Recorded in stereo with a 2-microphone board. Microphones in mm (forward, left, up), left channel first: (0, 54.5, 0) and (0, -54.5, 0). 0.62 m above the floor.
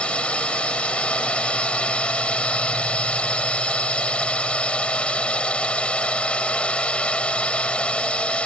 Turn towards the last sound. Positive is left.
turn(degrees=10)  # may be behind; listen again after turning